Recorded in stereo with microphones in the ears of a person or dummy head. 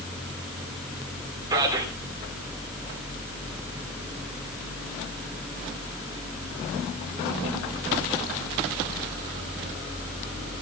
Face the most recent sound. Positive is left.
turn(degrees=-15)  # may be behind; listen again after turning